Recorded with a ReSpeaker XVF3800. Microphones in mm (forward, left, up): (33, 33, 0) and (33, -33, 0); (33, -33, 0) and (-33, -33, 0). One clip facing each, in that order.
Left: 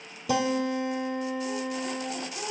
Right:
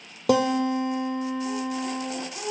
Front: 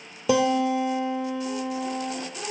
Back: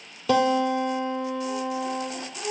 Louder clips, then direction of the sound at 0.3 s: Right 5 dB, even; 75° right.